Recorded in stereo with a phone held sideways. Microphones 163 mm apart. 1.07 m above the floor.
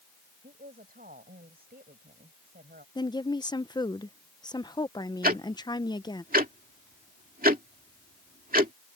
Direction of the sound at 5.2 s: 60° right (ahead or behind).